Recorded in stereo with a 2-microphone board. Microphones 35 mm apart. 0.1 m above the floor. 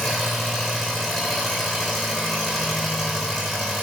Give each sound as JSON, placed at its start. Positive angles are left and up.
{"t": 0.0, "sound": "an engine running", "side_deg": -5, "distance_m": 3.0}